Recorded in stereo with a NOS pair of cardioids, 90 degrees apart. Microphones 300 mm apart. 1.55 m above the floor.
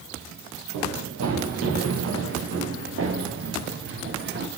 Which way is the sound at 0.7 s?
60° right.